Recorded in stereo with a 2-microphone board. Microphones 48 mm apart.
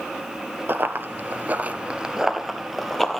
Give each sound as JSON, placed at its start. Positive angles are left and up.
{"t": 0.7, "sound": "running footsteps", "side_deg": -45, "distance_m": 0.8}